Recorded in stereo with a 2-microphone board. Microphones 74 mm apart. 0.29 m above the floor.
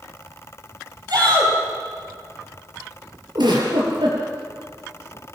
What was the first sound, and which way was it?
A shout, 65° right (ahead or behind).